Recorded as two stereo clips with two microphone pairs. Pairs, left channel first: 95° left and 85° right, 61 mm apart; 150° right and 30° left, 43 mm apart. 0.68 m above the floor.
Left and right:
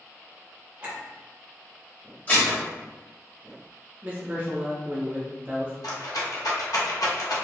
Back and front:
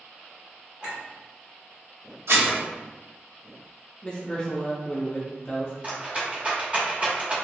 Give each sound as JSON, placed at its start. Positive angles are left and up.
{"t": 0.8, "sound": "a clink", "azimuth_deg": -30, "distance_m": 1.7}
{"t": 2.3, "sound": "dishes clattering", "azimuth_deg": 35, "distance_m": 1.9}
{"t": 4.0, "sound": "a man speaking", "azimuth_deg": -115, "distance_m": 0.6}
{"t": 5.8, "sound": "a rattle", "azimuth_deg": 95, "distance_m": 0.9}